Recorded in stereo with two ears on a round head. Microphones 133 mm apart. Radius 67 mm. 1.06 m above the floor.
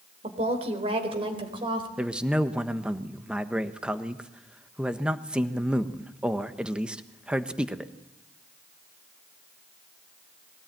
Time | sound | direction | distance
0.2 | a woman speaking | 45° right (ahead or behind) | 3.5 m
2.0 | a man speaking | 5° right (ahead or behind) | 1.1 m